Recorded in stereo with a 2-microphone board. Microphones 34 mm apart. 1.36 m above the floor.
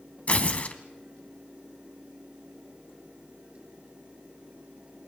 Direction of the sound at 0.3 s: 40° left (ahead or behind).